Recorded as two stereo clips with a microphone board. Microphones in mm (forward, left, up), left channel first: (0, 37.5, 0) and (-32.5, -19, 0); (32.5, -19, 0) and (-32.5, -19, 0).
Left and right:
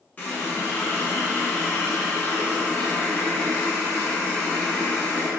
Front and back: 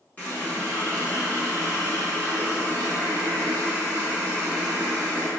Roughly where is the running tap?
Ahead left.